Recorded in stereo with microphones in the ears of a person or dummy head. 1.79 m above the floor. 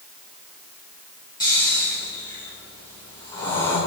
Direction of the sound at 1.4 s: 20° left (ahead or behind).